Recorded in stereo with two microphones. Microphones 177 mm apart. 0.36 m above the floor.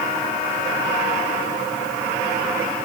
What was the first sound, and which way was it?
Only background noise.